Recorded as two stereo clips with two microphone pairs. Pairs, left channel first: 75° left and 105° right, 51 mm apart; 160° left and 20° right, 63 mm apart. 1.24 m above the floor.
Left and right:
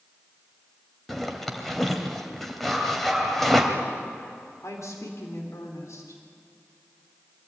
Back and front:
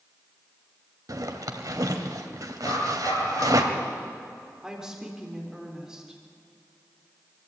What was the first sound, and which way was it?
A zipper, 15° right.